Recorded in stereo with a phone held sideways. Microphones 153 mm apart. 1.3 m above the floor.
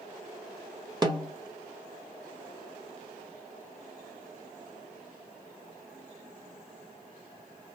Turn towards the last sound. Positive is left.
turn(degrees=-25)  # may be behind; listen again after turning